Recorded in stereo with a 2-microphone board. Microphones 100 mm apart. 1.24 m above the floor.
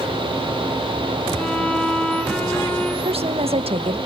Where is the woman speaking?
75° right (ahead or behind), 1.5 m.